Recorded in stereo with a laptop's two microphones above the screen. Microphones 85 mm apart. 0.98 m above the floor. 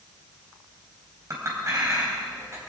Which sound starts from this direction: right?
A clink, at 1.3 s.